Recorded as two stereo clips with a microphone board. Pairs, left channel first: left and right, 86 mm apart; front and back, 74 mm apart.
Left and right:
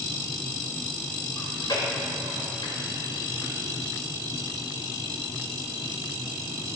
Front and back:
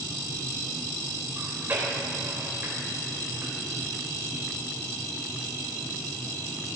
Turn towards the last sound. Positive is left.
turn(degrees=120)